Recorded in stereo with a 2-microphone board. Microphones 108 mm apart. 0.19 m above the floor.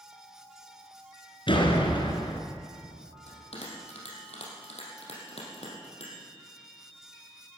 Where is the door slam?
55° left (ahead or behind), 2 m.